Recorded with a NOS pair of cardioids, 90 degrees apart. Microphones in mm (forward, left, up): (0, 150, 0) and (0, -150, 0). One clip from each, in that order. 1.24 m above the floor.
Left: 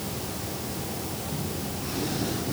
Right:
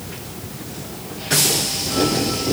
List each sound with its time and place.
Only background noise.